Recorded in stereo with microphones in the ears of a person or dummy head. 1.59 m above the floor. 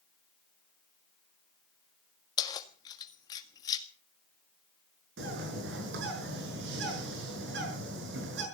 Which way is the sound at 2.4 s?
25° left (ahead or behind).